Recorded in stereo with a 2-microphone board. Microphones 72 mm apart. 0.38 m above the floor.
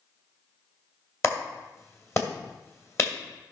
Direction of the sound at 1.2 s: 40° left (ahead or behind).